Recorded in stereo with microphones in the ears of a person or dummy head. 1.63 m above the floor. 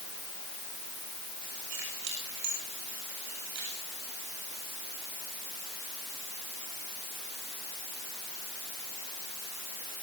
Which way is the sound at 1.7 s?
80° right.